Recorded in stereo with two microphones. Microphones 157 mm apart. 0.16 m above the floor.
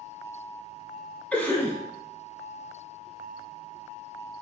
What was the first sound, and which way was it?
A cough, 10° left (ahead or behind).